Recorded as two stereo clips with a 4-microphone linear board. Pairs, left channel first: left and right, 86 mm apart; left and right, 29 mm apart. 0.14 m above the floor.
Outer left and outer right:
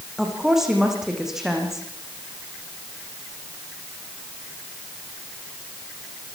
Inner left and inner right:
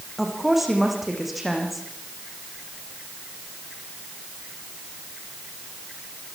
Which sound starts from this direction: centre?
A woman speaking, at 0.2 s.